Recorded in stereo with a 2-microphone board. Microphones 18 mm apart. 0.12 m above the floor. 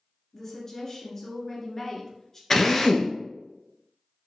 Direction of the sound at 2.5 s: 25° left (ahead or behind).